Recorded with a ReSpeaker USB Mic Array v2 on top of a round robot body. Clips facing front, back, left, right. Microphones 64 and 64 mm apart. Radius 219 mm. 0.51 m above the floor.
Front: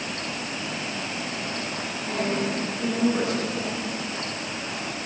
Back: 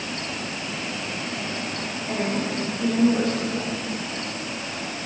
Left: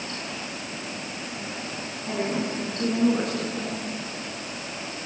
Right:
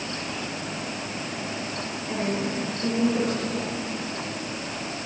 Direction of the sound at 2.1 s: 75° left.